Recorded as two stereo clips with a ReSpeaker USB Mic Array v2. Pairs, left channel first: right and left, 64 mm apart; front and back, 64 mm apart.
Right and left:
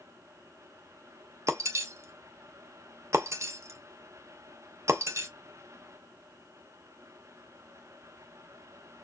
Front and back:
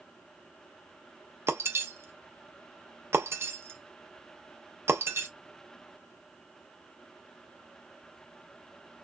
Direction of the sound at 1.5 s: 130° left.